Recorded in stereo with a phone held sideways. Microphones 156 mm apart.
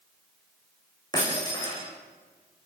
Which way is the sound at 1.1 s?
25° left (ahead or behind).